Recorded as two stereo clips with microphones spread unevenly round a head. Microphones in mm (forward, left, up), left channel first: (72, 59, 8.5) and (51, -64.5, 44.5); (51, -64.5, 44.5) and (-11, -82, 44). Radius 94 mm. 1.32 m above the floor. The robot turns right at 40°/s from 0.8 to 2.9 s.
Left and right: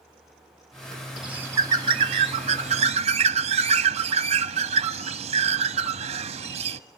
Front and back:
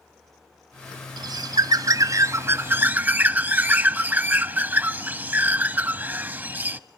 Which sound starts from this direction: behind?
A bird, at 1.2 s.